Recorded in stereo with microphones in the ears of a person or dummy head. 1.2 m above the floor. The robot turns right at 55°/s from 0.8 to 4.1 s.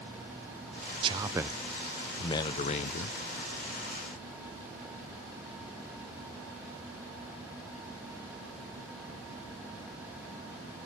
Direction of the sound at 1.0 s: 35° right.